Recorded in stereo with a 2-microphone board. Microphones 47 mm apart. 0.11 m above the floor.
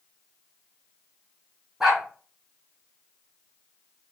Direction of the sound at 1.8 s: 10° right (ahead or behind).